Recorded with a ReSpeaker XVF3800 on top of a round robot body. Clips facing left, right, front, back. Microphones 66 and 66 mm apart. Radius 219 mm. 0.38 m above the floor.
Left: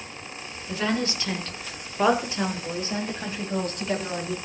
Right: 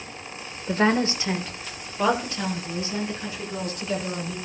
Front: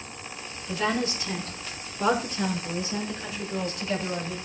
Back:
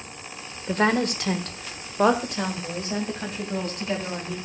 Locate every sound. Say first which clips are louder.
0.7 s a woman speaking: right 5 dB, back 5 dB; 135° right, 1.9 m; by 4.4 s 130° left, 4 m